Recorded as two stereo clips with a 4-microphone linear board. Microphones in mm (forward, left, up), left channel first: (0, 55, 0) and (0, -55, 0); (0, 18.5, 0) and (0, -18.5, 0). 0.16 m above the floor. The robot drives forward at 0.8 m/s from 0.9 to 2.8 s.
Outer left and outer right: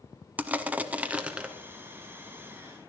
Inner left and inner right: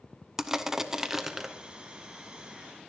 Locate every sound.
0.4 s crushing: 15° right (ahead or behind), 0.6 m; by 1.5 s 10° right (ahead or behind), 1.0 m